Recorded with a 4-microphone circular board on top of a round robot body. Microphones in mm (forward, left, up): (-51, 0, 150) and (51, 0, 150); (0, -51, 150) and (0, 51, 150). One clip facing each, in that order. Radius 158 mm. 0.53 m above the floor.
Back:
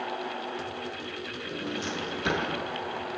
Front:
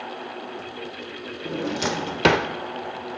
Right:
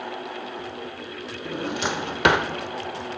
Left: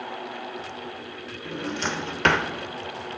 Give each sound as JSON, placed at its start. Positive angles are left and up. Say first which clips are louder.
{"t": 1.4, "sound": "a drawer", "louder": "front 9 dB, right 2 dB", "azimuth_deg": -10, "distance_m": 1.0}